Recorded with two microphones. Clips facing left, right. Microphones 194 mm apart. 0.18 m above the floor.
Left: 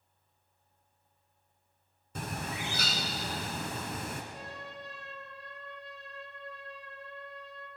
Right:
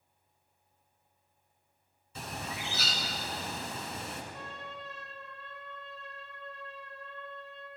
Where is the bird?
50° left (ahead or behind), 1.8 m.